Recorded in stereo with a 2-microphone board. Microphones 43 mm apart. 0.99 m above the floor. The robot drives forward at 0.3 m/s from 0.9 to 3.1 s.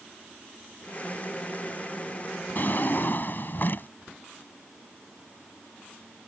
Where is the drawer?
45° left (ahead or behind); by 3.9 s 50° left (ahead or behind).